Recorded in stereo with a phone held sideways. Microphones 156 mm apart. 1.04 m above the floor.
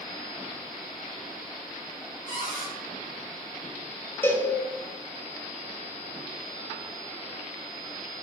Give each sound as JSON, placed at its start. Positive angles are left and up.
{"t": 2.3, "sound": "a cupboard door", "side_deg": 60, "distance_m": 2.0}
{"t": 4.2, "sound": "a cowbell", "side_deg": 15, "distance_m": 0.7}